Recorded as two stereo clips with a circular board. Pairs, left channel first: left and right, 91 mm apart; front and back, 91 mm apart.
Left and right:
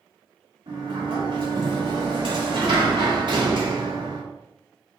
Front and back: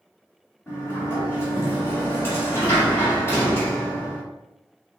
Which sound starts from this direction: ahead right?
A sliding door, at 0.7 s.